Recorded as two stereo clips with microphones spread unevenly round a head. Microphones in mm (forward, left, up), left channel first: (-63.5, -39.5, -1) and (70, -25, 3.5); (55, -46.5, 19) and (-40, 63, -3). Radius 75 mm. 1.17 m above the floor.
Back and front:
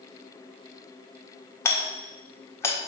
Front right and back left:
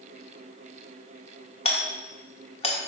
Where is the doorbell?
105° right, 1.7 m.